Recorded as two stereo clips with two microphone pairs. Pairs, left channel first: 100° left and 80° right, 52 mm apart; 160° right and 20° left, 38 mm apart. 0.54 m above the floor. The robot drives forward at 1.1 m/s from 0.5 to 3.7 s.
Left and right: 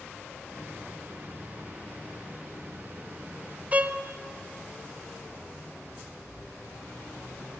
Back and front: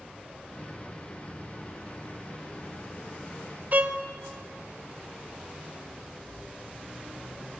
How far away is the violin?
About 0.9 m.